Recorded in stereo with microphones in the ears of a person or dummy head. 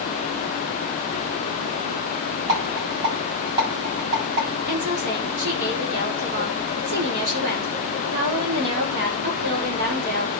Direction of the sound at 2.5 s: 30° right (ahead or behind).